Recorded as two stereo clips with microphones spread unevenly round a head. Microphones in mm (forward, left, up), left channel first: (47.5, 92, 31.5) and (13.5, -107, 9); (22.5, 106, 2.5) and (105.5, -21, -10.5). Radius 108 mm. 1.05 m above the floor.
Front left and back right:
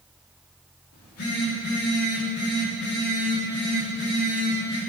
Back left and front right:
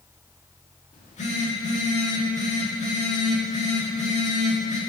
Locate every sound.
0.9 s a phone buzzing: 80° left, 3 m